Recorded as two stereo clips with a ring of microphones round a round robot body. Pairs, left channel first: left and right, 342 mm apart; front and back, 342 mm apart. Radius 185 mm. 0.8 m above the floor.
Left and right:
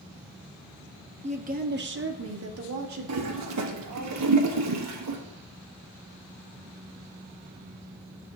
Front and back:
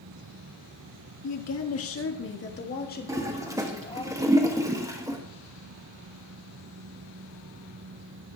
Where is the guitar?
I don't hear a guitar.